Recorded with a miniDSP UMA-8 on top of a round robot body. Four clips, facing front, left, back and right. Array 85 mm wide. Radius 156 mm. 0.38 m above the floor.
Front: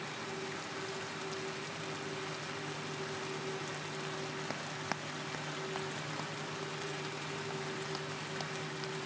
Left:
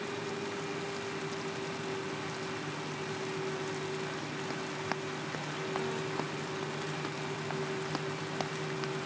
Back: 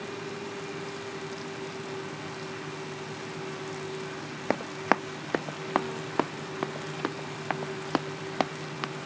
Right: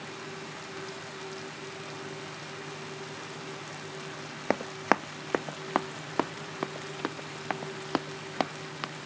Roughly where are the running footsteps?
Behind right.